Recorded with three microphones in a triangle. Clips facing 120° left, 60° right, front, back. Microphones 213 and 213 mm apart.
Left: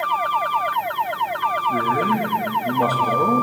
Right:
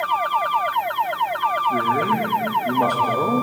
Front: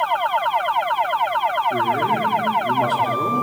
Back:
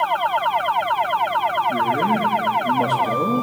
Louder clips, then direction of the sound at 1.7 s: Left 1 dB, back 2 dB; 175° left.